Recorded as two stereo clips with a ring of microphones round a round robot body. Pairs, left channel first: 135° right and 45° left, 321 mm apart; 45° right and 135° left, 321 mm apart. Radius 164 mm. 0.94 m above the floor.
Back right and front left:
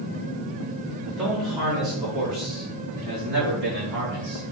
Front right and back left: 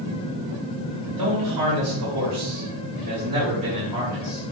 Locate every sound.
1.1 s a man speaking: 130° left, 2.0 m; by 4.4 s 45° left, 1.7 m